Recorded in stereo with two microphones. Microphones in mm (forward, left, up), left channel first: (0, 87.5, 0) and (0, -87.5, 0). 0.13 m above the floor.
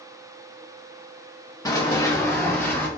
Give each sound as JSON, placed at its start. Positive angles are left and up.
{"t": 1.6, "sound": "running footsteps", "side_deg": 20, "distance_m": 1.0}